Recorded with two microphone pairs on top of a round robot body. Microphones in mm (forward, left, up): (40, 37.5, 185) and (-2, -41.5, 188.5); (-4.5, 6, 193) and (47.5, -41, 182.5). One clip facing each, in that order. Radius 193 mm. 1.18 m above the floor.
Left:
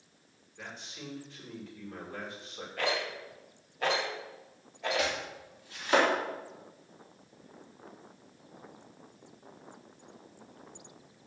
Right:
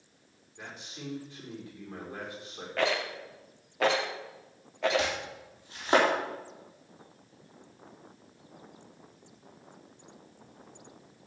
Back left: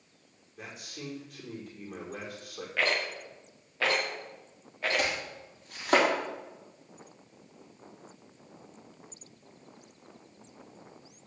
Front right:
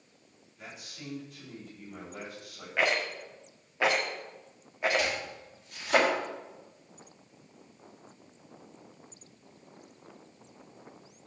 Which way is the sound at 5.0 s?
175° left.